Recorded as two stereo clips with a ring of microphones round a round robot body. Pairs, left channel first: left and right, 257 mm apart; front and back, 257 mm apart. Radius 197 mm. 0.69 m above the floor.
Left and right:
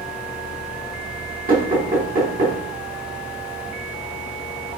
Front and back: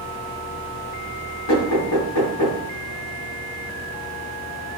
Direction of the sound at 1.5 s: 35° right.